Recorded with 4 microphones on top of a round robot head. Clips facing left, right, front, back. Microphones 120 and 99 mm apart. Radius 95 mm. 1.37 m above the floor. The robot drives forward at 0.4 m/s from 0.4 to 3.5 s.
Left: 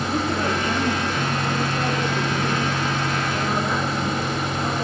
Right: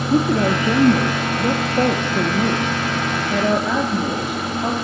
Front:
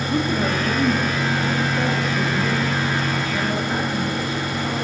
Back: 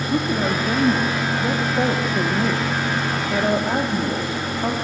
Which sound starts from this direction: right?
A woman speaking, at 0.1 s.